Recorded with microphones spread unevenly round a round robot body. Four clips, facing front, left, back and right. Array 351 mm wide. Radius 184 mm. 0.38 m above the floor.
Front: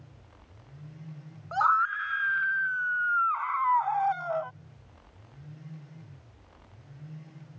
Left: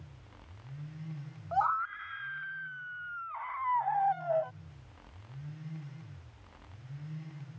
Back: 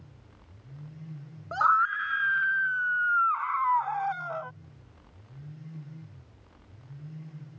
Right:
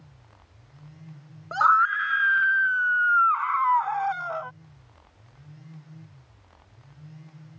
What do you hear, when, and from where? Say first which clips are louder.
1.5 s a scream: right 10 dB, back 1 dB; 135° right; by 4.5 s 120° right